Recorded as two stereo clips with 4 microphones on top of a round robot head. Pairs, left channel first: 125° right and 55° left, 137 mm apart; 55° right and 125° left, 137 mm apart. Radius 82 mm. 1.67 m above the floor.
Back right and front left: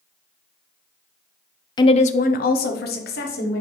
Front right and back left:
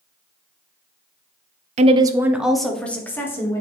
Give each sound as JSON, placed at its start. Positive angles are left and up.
{"t": 1.8, "sound": "a woman speaking", "azimuth_deg": 170, "distance_m": 0.5}